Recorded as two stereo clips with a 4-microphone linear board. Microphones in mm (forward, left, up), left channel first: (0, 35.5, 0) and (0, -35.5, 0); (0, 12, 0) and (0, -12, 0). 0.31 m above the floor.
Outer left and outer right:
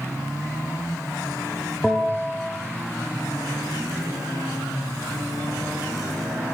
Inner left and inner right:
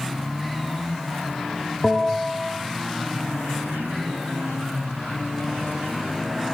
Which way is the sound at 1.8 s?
Centre (ahead or behind).